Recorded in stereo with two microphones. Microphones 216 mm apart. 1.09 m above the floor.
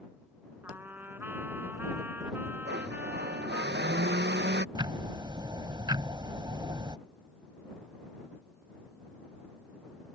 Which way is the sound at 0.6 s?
10° right (ahead or behind).